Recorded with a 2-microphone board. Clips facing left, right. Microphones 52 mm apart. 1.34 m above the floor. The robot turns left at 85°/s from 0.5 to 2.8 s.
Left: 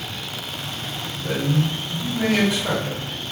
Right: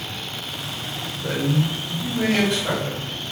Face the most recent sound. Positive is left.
turn(degrees=170)